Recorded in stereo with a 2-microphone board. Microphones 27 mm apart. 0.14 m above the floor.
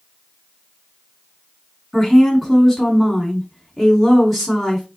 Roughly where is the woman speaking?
Centre.